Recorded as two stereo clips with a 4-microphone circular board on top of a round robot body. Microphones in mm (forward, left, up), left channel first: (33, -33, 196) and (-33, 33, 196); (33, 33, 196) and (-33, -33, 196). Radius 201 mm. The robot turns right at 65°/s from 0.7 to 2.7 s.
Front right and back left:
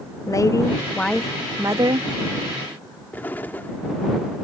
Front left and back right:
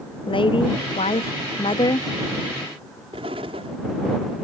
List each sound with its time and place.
0.3 s a woman speaking: 15° left; by 2.1 s 105° left
3.1 s an explosion: 115° right